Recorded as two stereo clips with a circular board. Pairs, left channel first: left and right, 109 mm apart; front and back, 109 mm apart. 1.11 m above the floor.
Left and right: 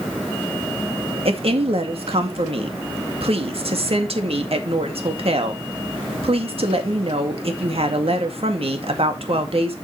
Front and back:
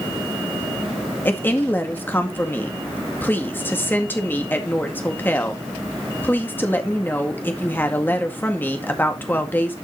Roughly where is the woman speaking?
Right.